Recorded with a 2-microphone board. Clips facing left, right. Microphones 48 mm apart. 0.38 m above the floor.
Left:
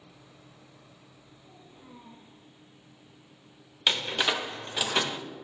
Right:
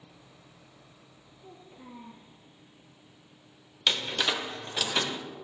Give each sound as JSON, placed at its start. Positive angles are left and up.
{"t": 1.4, "sound": "a child speaking", "side_deg": -70, "distance_m": 4.0}
{"t": 3.9, "sound": "a door slam", "side_deg": 15, "distance_m": 0.7}